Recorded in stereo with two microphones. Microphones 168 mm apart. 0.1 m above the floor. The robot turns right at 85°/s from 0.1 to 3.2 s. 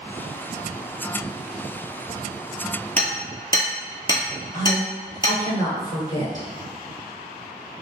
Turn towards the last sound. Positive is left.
turn(degrees=25)  # may be behind; listen again after turning